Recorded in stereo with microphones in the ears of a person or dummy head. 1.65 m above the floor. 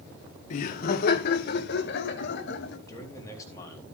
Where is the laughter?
50° left (ahead or behind), 0.9 m; by 2.8 s 75° left (ahead or behind), 2.5 m.